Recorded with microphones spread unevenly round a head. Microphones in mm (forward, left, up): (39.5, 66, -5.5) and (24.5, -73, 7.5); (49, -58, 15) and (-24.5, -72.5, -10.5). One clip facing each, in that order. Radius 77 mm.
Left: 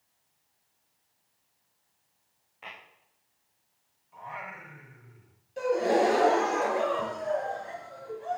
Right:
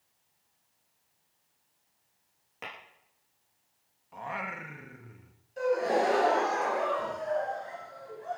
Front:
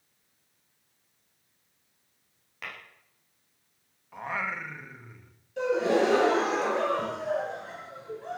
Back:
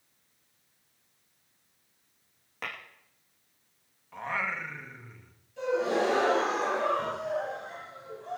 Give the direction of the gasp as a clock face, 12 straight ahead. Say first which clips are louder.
Left 2 dB, front 3 dB; 11 o'clock.